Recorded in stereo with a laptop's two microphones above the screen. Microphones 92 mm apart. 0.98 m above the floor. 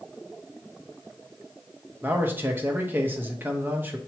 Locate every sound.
2.0 s a man speaking: 25° right (ahead or behind), 1.0 m